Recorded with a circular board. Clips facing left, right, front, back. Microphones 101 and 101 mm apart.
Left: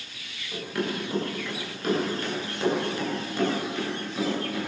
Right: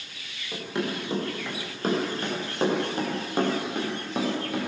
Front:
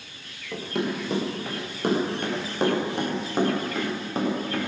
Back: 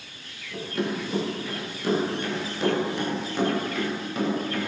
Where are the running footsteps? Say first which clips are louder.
Even, front 1 dB; 20° right, 7 m; by 4.7 s 60° right, 6.5 m.